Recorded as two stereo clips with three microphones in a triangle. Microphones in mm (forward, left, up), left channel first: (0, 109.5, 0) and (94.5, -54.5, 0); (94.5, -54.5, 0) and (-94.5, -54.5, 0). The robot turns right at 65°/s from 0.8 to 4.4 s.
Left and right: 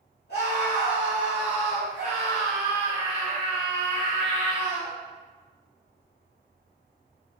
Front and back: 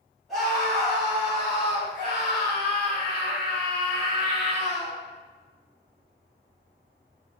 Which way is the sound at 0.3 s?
90° left.